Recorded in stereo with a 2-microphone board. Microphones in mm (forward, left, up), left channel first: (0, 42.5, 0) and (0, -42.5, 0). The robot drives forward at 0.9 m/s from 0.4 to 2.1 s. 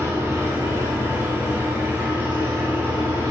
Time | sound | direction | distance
0.0 | an engine running | 35° right (ahead or behind) | 5 m